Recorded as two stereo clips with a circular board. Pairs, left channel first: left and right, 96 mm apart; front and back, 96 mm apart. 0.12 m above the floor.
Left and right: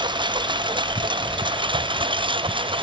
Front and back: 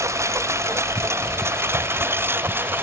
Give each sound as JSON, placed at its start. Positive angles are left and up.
{"t": 0.0, "sound": "a lawn mower", "azimuth_deg": -120}